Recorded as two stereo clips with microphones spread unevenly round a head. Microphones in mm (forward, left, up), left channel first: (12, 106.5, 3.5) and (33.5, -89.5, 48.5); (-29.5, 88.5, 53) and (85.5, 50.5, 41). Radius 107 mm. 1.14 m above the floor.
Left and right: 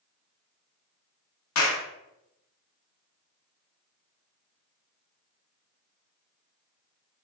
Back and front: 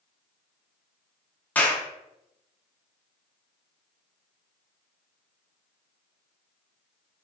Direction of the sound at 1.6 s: 85° left.